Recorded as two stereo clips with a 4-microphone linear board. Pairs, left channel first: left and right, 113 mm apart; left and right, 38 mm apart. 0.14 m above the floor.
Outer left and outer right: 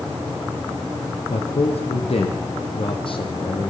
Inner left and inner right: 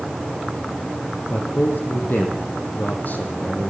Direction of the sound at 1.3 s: 70° left (ahead or behind).